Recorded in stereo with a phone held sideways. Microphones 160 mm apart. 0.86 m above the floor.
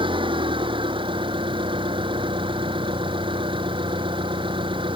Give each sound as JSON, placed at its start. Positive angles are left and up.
{"t": 0.0, "sound": "an engine running", "side_deg": -30}